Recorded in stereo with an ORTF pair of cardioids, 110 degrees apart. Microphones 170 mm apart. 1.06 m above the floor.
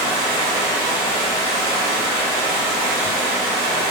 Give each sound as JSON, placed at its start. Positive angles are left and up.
{"t": 0.0, "sound": "running water", "azimuth_deg": -65, "distance_m": 0.9}